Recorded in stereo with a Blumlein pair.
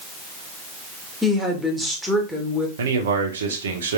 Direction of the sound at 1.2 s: 5° right.